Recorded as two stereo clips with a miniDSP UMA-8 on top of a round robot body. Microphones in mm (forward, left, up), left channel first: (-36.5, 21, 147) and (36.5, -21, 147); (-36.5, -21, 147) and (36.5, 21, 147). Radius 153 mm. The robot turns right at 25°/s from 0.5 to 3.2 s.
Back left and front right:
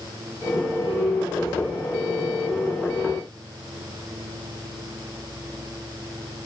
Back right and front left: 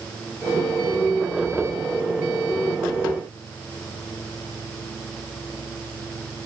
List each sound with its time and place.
Only background noise.